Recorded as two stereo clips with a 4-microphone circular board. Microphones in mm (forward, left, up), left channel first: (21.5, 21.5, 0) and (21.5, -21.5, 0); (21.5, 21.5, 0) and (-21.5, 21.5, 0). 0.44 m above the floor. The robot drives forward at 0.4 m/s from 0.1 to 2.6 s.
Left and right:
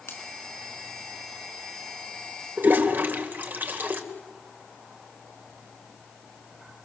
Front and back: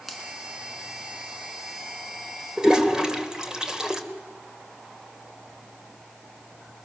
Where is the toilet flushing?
110° right, 2 m; by 4.0 s 115° right, 2 m.